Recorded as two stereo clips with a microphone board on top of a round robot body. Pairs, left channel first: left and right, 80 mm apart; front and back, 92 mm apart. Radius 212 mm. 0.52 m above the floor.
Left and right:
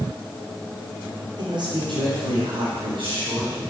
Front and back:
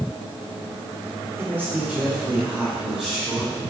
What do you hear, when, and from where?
1.4 s a man speaking: 115° right, 3 m; by 3.6 s 95° right, 5 m